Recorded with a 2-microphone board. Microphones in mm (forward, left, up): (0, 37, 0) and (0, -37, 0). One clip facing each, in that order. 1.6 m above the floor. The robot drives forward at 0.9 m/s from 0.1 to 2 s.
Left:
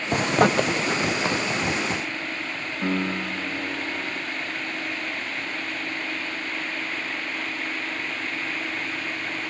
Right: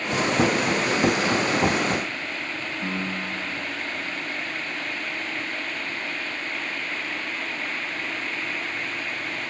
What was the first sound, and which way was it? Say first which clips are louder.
A zipper: left 2 dB; 45° left (ahead or behind).